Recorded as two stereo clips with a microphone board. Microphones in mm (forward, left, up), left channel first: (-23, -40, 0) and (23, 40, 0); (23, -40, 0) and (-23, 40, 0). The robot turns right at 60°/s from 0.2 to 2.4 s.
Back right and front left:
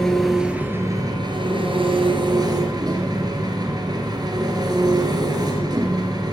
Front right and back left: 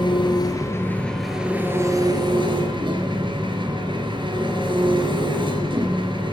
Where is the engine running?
35° right, 2.5 m; by 6.3 s 100° left, 2.5 m.